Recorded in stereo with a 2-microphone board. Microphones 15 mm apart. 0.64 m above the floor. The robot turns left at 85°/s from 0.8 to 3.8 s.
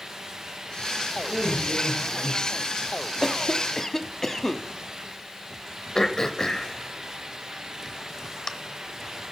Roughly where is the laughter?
Right.